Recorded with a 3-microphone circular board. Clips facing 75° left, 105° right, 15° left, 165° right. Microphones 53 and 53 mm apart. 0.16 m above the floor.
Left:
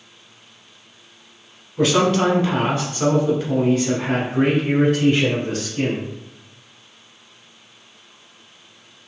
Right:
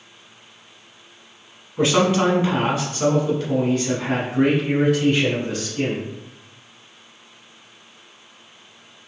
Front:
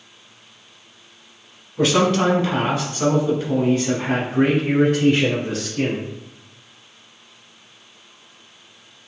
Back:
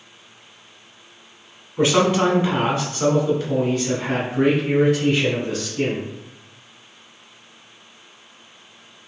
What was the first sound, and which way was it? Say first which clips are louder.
A man speaking: left 1 dB, even; 135° right.